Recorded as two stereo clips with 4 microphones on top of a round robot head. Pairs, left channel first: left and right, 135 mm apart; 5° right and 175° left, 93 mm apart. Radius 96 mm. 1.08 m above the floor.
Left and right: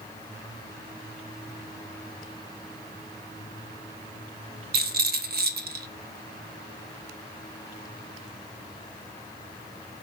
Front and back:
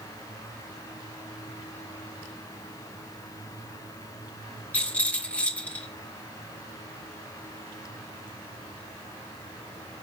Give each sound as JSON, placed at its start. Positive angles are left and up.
{"t": 4.7, "sound": "a rattle", "azimuth_deg": -85, "distance_m": 0.7}